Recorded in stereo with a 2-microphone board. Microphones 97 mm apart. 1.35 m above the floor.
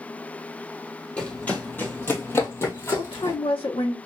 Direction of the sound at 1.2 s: 15° left (ahead or behind).